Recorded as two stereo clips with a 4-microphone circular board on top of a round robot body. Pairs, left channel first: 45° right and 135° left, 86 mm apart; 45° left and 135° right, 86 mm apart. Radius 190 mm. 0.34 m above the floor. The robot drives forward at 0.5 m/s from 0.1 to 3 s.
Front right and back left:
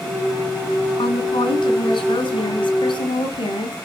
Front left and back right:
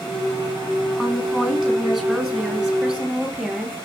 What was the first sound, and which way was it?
A woman speaking, 50° right.